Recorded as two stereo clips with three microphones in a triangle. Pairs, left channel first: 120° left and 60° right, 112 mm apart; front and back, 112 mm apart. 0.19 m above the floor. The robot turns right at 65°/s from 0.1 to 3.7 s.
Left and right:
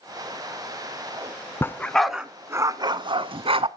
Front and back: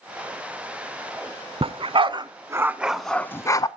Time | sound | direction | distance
1.6 | a dog barking | straight behind | 0.5 m